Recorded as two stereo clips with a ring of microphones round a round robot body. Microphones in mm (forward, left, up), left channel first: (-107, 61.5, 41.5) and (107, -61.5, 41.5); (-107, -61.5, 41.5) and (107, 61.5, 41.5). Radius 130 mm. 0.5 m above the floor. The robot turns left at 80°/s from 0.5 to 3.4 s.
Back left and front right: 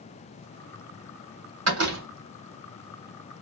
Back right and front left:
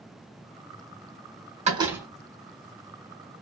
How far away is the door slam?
About 1.3 m.